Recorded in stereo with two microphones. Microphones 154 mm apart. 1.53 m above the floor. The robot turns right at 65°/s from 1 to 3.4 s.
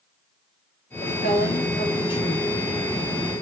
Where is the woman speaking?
75° left, 6.5 m; by 2.5 s 175° left, 6.5 m.